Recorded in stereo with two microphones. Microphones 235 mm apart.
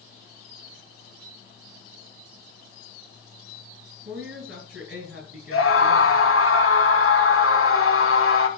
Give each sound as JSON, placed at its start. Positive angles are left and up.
{"t": 4.0, "sound": "a woman speaking", "side_deg": -60, "distance_m": 8.5}
{"t": 5.5, "sound": "a scream", "side_deg": 70, "distance_m": 4.0}